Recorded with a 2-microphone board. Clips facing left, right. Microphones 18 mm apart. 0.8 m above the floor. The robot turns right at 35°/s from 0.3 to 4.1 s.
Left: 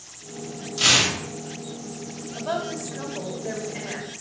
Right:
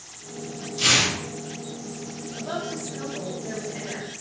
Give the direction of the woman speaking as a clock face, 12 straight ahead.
8 o'clock.